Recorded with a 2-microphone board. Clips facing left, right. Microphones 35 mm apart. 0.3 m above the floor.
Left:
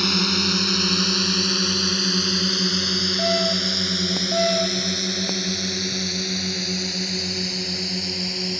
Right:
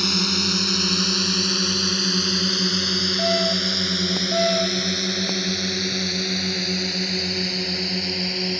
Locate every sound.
0.0 s a drone: 10° left (ahead or behind); by 8.6 s 20° right (ahead or behind)